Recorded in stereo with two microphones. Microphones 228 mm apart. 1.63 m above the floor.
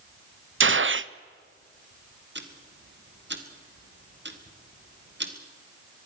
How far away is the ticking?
About 2 m.